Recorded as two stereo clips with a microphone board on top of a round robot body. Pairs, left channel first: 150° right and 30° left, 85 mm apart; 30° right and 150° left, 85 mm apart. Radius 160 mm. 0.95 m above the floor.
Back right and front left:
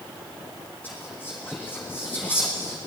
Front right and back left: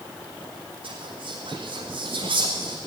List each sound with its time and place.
0.8 s whispering: 140° left, 1.7 m